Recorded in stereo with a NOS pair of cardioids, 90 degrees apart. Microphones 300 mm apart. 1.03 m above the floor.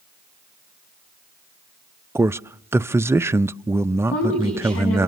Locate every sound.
2.1 s a man speaking: 10° right, 0.5 m
4.1 s a woman speaking: 50° left, 9.5 m